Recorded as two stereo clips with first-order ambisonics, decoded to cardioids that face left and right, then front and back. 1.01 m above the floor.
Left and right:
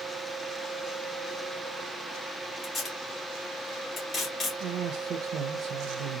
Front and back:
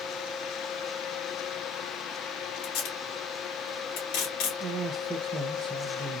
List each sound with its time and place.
2.6 s tape being pulled: 20° left, 1.7 m
4.6 s a man speaking: 115° right, 0.6 m